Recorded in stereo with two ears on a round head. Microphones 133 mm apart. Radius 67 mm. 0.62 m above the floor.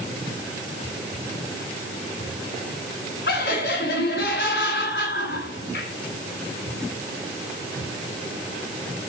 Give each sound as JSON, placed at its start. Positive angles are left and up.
{"t": 3.3, "sound": "laughter", "side_deg": 65, "distance_m": 6.0}